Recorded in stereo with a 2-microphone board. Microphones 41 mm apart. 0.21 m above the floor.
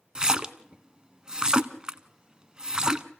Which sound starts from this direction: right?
A splash, at 0.1 s.